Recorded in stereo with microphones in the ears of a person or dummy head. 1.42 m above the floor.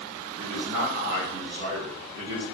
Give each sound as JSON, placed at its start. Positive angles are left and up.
{"t": 0.4, "sound": "a man speaking", "side_deg": -70, "distance_m": 1.2}